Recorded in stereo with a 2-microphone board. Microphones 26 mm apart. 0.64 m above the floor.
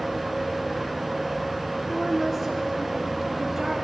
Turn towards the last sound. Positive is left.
turn(degrees=-20)  # may be behind; listen again after turning